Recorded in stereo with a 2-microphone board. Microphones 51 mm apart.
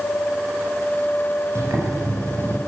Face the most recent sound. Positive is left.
turn(degrees=-85)